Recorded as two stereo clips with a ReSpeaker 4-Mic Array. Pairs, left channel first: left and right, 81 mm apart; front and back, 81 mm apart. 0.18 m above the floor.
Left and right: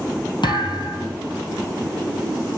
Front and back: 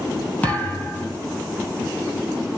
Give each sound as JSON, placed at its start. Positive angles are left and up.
{"t": 0.4, "sound": "a thud", "azimuth_deg": 70, "distance_m": 1.8}